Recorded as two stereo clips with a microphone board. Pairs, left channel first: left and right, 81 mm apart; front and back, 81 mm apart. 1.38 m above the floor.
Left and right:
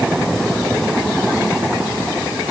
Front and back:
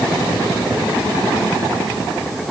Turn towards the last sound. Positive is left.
No sound to turn to.